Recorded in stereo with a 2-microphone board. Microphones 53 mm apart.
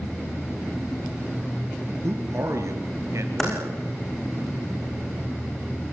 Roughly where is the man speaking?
Right.